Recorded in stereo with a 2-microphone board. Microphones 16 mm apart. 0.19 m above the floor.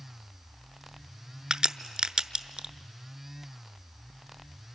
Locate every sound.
1.5 s a crack: 65° right (ahead or behind), 0.6 m